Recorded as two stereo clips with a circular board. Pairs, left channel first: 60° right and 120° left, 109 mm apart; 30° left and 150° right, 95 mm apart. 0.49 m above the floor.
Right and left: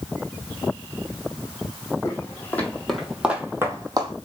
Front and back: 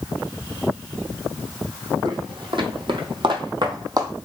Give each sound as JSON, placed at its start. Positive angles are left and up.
{"t": 2.0, "sound": "footsteps", "azimuth_deg": -120, "distance_m": 1.2}